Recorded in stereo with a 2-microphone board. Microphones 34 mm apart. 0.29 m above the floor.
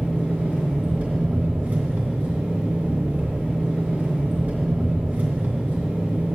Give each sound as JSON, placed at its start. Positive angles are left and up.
{"t": 0.0, "sound": "an engine running", "side_deg": -55, "distance_m": 2.5}